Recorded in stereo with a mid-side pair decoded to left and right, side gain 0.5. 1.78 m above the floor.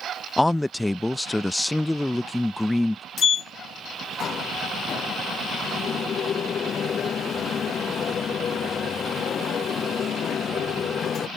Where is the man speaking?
10° left.